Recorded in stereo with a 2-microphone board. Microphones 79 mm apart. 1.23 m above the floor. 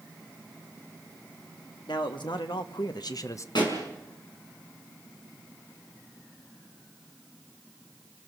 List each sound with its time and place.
1.9 s a man speaking: 75° left (ahead or behind), 1.9 m; by 3.5 s 40° left (ahead or behind), 0.8 m
3.5 s a pop: 70° left (ahead or behind), 5.5 m